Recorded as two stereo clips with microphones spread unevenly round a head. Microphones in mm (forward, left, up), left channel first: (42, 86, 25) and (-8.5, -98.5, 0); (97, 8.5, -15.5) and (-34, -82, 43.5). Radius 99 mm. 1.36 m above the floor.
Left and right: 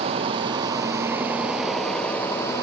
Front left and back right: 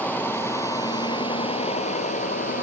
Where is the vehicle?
45° right; by 2.6 s straight ahead.